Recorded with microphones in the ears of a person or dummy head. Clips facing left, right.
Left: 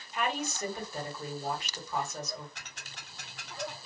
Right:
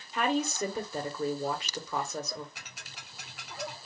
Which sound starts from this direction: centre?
Ticking, at 2.5 s.